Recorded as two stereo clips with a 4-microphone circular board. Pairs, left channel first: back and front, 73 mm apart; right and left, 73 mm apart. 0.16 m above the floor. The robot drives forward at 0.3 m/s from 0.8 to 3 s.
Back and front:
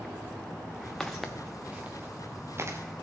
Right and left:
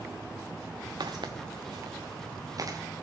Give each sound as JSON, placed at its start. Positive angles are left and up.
{"t": 1.0, "sound": "footsteps", "azimuth_deg": 95, "distance_m": 1.0}